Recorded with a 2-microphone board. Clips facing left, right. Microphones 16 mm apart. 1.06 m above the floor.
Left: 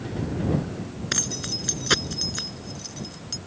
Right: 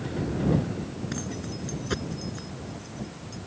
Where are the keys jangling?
60° left (ahead or behind).